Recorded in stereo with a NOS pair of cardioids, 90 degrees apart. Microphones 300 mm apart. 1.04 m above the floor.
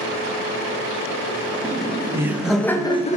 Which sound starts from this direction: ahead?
Laughter, at 1.6 s.